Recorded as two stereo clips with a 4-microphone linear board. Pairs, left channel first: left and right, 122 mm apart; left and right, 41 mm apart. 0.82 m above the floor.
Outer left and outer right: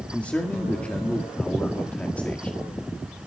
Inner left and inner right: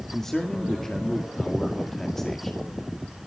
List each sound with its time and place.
0.1 s a man speaking: 10° left (ahead or behind), 1.9 m